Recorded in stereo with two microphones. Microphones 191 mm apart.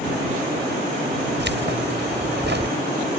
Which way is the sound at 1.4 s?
65° right (ahead or behind).